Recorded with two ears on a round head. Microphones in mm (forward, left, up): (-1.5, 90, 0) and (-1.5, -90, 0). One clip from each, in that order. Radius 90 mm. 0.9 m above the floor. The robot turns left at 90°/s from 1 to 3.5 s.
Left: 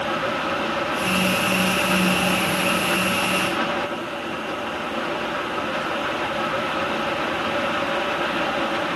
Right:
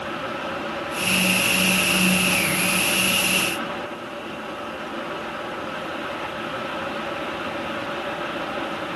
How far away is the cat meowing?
No cat meowing in this recording.